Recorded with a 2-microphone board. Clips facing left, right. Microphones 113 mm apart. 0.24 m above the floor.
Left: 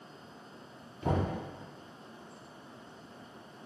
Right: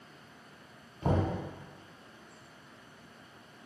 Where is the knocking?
35° right (ahead or behind), 1.2 m.